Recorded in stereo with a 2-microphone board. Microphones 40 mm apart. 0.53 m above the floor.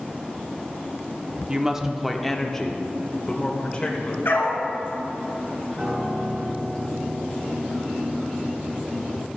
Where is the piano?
35° right (ahead or behind), 3 m.